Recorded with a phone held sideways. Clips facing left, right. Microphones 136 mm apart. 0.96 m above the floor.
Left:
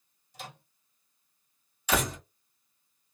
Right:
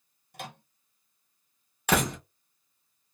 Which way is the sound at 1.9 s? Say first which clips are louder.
Right 3 dB; 60° right (ahead or behind).